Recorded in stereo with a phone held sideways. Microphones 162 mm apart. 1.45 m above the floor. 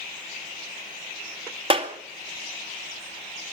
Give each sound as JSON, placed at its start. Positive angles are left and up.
{"t": 1.7, "sound": "a clap", "side_deg": -35, "distance_m": 2.0}